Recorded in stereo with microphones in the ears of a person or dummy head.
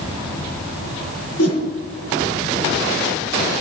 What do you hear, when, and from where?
1.4 s a whoosh: 80° left, 8 m